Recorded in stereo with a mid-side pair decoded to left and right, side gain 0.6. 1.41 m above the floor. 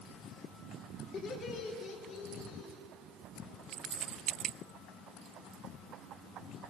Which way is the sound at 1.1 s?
50° left.